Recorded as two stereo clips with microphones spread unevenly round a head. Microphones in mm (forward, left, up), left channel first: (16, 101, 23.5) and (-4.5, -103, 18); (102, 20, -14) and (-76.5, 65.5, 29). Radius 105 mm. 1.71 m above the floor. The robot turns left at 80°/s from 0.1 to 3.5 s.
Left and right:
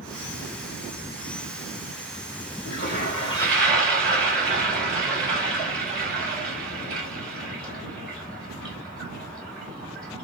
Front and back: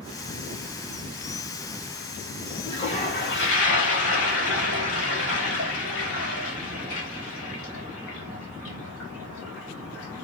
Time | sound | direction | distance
2.6 | a toilet flushing | 65° left | 3.5 m